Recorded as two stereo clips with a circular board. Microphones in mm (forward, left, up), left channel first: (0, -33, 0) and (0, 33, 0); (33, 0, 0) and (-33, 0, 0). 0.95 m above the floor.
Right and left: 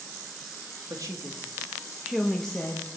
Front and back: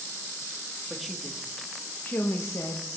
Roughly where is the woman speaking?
Left.